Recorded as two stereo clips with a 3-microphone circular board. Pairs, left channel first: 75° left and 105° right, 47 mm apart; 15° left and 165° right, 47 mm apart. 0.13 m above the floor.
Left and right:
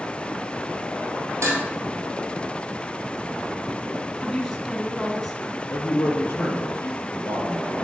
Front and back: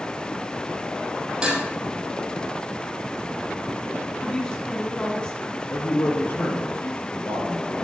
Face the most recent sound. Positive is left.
turn(degrees=45)